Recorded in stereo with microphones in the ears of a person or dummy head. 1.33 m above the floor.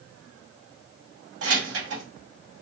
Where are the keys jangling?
80° right, 2 m.